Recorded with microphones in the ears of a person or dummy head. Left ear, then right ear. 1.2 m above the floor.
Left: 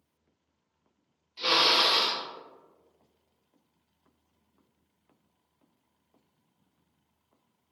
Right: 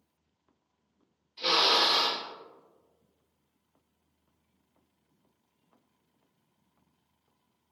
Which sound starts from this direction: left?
A drill, at 1.4 s.